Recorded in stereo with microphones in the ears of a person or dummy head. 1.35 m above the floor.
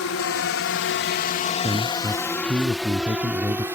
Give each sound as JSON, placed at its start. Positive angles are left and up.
{"t": 0.0, "sound": "a drone", "side_deg": 70}
{"t": 1.6, "sound": "a man speaking", "side_deg": -20}